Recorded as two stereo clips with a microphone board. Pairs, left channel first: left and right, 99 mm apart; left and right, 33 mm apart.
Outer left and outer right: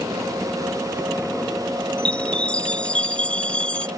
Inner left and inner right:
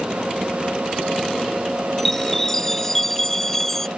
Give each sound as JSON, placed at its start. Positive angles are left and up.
{"t": 2.0, "sound": "a chime", "side_deg": 10}